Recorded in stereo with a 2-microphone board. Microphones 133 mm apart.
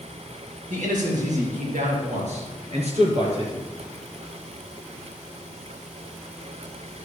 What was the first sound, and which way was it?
A man speaking, 70° right (ahead or behind).